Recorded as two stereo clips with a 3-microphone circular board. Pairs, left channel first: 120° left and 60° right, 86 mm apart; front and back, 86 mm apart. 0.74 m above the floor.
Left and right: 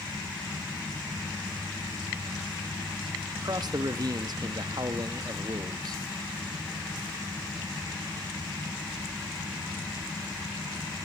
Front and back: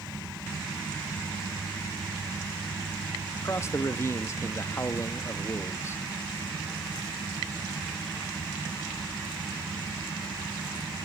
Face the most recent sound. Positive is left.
turn(degrees=-50)